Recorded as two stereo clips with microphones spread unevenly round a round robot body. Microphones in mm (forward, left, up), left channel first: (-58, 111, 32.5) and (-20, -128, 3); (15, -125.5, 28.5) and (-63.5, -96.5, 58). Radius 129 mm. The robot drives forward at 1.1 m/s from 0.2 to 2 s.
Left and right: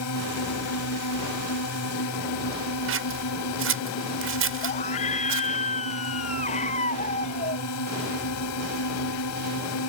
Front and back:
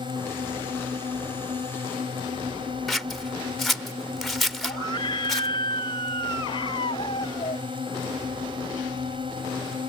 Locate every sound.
0.0 s a drone: 100° left; by 9.9 s 110° left
2.9 s scissors: 100° right
4.6 s a scream: 35° left